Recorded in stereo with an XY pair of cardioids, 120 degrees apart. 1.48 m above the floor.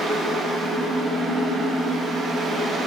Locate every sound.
0.0 s a fan: 60° right, 3 m